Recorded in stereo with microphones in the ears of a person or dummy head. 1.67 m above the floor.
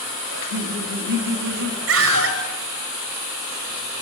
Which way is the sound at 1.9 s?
85° right.